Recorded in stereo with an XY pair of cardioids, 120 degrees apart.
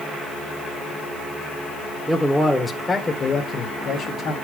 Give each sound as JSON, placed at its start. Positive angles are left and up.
{"t": 2.1, "sound": "a man speaking", "azimuth_deg": -5, "distance_m": 1.7}